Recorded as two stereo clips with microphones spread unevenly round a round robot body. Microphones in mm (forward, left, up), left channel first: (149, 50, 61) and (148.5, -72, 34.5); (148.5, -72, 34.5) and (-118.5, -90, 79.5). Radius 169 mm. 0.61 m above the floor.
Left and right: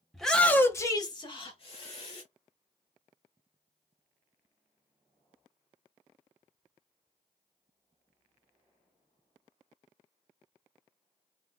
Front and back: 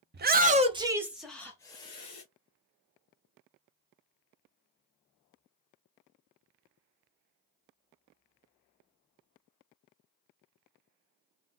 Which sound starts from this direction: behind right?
A shout, at 0.1 s.